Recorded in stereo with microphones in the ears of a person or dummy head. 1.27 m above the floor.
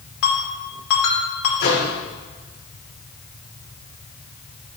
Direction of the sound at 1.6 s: 45° left (ahead or behind).